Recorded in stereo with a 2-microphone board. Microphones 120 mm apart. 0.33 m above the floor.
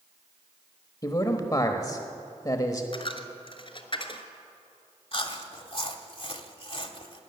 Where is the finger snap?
No finger snap in this recording.